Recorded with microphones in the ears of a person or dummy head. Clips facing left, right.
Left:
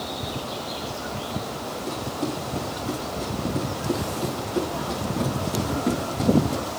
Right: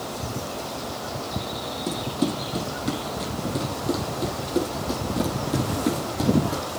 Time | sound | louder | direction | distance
1.9 | running footsteps | right 4 dB | 60° right (ahead or behind) | 2.5 m